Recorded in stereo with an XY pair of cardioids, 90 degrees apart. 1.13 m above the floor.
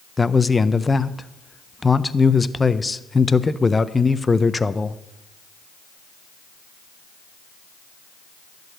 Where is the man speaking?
25° left, 0.5 m.